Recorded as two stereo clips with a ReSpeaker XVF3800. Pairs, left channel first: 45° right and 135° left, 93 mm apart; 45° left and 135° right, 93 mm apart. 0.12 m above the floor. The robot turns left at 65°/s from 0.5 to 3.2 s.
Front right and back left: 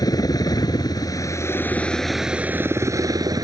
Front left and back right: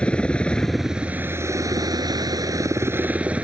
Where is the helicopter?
30° right; by 3.4 s 155° left.